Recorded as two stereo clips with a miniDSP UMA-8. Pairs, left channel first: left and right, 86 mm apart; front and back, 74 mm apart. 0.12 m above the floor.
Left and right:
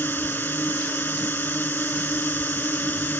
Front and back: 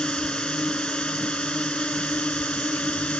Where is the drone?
60° left; by 3.2 s 55° left.